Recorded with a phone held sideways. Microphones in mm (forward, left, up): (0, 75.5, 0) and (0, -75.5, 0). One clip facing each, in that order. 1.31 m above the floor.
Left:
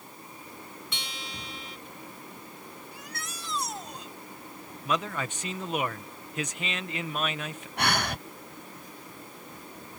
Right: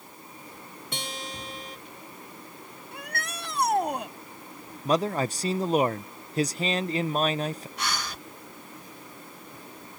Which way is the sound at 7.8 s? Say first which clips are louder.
Left 9 dB; 70° left (ahead or behind).